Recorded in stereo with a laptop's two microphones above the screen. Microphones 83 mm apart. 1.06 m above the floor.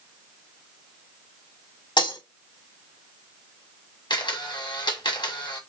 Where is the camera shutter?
70° left (ahead or behind), 1.3 m.